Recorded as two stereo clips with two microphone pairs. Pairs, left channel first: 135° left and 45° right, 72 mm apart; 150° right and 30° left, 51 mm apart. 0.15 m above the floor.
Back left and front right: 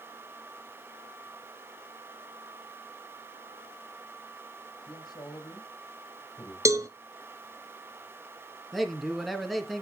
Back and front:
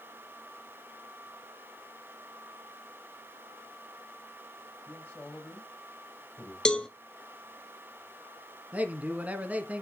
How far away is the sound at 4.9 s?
About 5 m.